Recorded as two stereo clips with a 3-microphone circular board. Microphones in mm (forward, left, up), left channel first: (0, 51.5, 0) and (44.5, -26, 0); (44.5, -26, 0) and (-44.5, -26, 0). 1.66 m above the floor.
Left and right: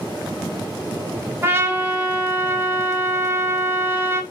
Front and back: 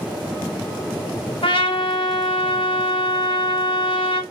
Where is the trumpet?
5° left, 0.7 m.